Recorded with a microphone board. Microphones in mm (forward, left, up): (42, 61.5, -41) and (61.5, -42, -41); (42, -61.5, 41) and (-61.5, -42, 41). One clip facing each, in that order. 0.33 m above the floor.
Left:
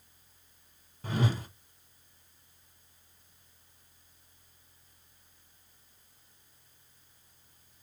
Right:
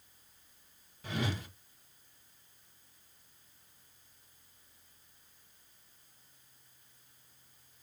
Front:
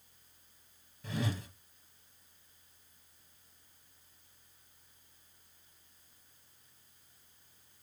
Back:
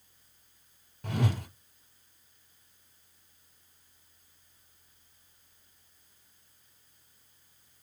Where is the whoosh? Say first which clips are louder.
Left 5 dB, back 5 dB; 145° left, 0.8 m.